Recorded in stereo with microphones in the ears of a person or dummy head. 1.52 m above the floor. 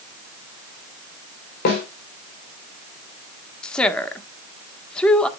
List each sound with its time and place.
1.6 s a snare drum: 60° left (ahead or behind), 3 m
3.6 s a woman speaking: 5° left (ahead or behind), 1.3 m